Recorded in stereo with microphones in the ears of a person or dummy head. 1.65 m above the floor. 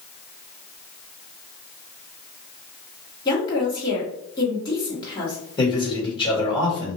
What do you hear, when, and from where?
3.2 s a woman speaking: 25° left (ahead or behind), 1.4 m
5.6 s a man speaking: 25° left (ahead or behind), 1.7 m